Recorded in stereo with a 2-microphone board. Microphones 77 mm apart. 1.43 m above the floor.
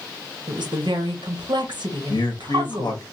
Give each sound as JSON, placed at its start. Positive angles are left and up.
{"t": 0.5, "sound": "a woman speaking", "side_deg": -85, "distance_m": 0.6}
{"t": 2.1, "sound": "a man speaking", "side_deg": 75, "distance_m": 0.7}